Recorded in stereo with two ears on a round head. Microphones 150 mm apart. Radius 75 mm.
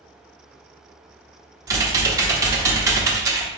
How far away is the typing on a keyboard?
About 0.8 m.